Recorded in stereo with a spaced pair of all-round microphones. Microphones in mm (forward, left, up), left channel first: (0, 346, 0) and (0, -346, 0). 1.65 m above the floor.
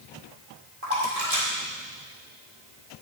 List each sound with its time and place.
0.8 s a splash: 55° right (ahead or behind), 2 m